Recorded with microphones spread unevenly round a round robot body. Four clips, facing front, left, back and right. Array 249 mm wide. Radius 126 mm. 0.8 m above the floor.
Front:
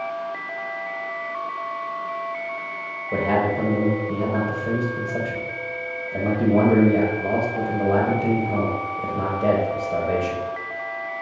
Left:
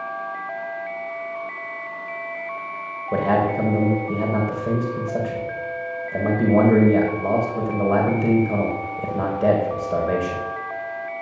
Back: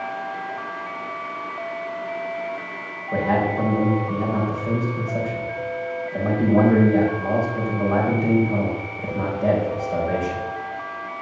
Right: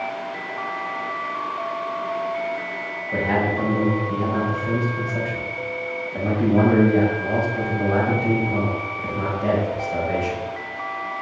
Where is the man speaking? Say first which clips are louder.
Left 3 dB, even; 65° left, 4.5 m.